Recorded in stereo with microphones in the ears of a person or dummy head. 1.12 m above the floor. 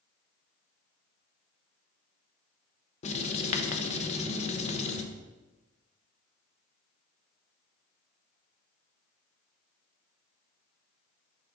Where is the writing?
35° left (ahead or behind), 0.8 m.